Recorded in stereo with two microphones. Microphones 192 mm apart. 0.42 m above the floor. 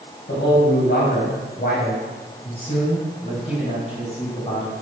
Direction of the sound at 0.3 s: 65° left (ahead or behind).